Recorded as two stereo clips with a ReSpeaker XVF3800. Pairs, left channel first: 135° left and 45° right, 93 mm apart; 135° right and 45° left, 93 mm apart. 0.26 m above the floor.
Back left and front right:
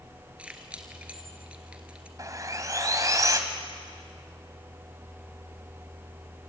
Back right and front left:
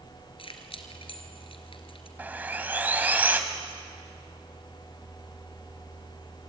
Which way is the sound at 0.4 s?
120° right.